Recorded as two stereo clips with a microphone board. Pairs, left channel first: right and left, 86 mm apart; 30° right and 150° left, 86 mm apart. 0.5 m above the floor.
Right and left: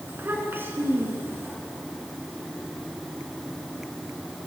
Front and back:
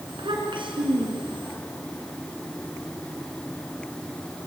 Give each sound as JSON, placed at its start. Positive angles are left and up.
{"t": 0.1, "sound": "a child speaking", "azimuth_deg": 155, "distance_m": 5.0}